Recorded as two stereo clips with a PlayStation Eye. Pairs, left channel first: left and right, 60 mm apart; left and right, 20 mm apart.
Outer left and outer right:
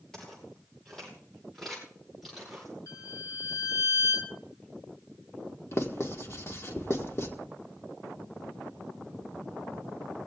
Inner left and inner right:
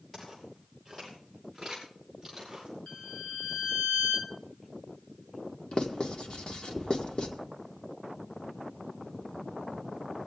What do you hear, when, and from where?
0.1 s footsteps: 10° left (ahead or behind), 8.5 m; by 2.7 s 5° right (ahead or behind), 8 m
2.9 s a violin: 70° left (ahead or behind), 2 m
5.7 s writing: 50° left (ahead or behind), 1.6 m